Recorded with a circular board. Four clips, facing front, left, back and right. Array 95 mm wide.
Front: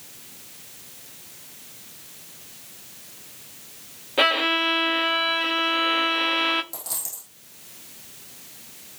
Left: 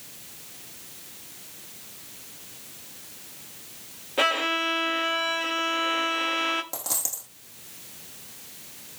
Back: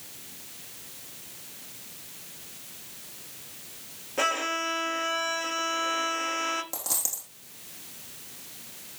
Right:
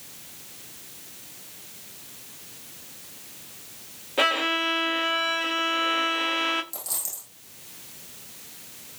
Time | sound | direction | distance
4.2 | a violin | 5° right | 0.7 m
6.7 | a dropped coin | 115° left | 5 m